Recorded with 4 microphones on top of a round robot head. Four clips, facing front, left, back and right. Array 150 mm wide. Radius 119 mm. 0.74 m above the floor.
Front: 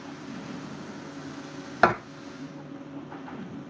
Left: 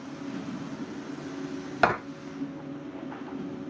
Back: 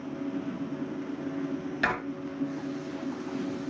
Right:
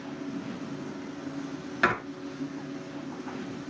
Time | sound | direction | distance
1.8 | writing | 30° left | 1.1 m